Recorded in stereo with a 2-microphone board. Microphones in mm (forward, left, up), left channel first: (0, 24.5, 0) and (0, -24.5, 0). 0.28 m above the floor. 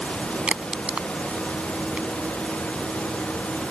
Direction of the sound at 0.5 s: 25° right (ahead or behind).